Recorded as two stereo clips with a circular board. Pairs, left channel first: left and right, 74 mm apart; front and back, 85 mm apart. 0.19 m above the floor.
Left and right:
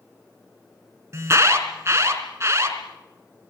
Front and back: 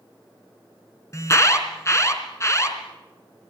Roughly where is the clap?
I don't hear a clap.